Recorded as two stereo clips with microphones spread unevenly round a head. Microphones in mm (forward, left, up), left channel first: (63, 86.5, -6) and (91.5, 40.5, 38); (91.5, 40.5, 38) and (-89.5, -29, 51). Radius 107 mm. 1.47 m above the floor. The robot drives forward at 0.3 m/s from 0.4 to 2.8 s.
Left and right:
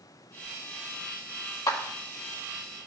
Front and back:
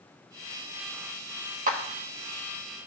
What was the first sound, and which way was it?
A clap, 150° left.